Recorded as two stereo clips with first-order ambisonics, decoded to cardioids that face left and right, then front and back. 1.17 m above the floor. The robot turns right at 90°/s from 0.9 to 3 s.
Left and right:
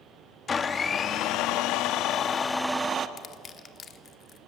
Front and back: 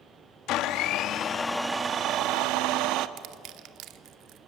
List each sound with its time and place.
0.5 s a blender: 25° left, 0.8 m; by 3.1 s 150° right, 0.8 m
3.2 s crushing: 150° left, 1.0 m